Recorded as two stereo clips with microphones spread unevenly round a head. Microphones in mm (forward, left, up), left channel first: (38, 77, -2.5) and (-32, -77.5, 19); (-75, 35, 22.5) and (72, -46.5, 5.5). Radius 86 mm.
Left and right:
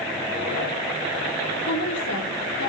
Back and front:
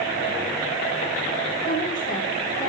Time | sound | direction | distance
1.7 | a woman speaking | 85° left | 2.5 m